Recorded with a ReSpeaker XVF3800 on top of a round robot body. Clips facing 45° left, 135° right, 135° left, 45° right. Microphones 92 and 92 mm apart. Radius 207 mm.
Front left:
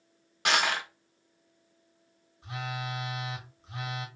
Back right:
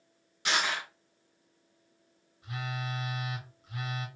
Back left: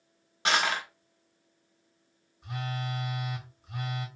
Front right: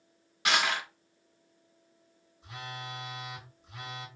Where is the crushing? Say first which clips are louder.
Front left 3 dB, back left 1 dB; 80° left, 1.0 m.